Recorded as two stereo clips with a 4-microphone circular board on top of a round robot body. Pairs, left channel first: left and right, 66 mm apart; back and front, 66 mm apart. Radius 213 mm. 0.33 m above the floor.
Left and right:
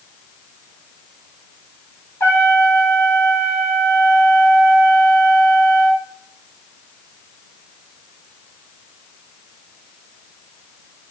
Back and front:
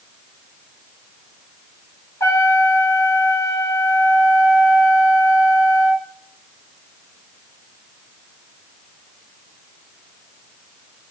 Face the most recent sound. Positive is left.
turn(degrees=135)